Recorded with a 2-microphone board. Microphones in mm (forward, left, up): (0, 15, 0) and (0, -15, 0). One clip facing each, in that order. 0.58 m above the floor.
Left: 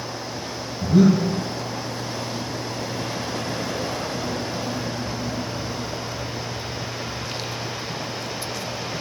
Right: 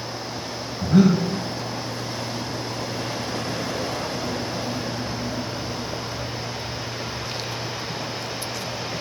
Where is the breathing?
85° right, 2.0 m.